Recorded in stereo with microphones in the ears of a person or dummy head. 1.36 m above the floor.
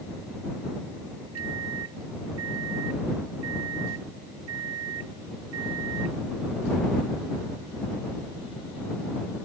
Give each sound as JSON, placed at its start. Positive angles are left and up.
{"t": 1.4, "sound": "a microwave", "side_deg": -80}